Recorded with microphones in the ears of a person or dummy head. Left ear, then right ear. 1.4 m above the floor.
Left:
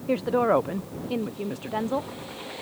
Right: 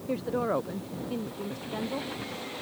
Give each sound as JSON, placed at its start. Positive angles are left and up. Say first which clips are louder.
{"t": 0.1, "sound": "a woman speaking", "louder": "left 7 dB", "side_deg": 30}